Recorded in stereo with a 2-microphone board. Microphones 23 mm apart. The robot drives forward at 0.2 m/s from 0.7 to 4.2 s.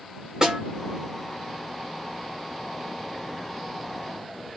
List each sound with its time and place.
0.4 s a snare drum: 25° right (ahead or behind), 1.3 m